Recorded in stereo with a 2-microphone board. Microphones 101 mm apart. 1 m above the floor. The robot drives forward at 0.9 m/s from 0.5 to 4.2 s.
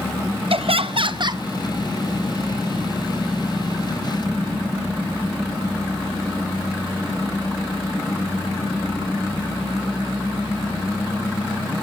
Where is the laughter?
70° right (ahead or behind), 0.7 m; by 1.4 s 45° right (ahead or behind), 1.0 m.